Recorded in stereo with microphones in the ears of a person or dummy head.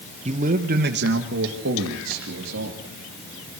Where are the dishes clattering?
I don't hear dishes clattering.